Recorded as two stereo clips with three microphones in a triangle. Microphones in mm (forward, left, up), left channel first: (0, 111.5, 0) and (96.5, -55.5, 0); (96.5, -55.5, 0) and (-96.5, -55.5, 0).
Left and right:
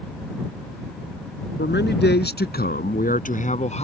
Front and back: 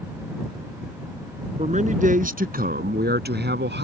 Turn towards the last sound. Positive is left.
turn(degrees=170)